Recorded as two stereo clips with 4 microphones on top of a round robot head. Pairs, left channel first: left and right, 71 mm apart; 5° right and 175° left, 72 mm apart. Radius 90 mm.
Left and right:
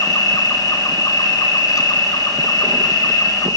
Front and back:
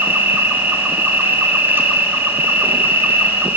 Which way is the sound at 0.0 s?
115° left.